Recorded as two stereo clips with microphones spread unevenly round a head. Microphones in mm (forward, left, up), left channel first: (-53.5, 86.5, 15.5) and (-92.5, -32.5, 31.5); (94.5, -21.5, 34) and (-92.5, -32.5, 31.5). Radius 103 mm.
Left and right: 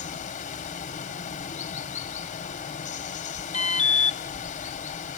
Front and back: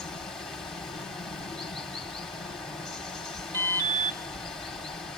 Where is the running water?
90° left, 0.7 m.